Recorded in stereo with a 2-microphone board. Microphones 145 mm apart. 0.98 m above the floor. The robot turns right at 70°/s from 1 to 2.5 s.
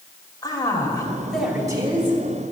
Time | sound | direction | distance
0.4 | a man speaking | 155° left | 3 m